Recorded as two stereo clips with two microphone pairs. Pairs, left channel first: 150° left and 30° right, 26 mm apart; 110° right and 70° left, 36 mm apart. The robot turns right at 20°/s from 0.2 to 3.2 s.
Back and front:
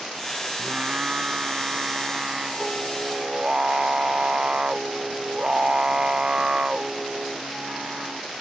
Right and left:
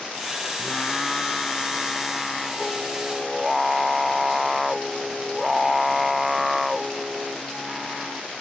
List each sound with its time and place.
0.6 s singing: 65° right; by 8.2 s 15° right